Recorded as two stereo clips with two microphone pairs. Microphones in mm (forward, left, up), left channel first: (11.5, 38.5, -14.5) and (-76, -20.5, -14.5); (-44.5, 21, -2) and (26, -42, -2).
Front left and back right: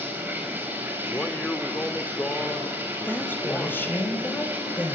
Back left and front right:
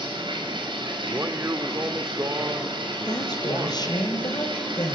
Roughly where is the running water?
Right.